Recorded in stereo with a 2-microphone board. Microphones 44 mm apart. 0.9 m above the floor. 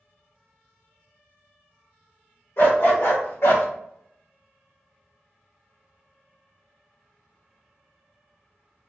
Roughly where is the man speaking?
I don't hear a man speaking.